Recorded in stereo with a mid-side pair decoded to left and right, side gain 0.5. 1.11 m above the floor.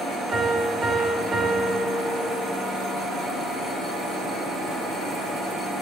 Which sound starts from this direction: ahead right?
A piano, at 0.3 s.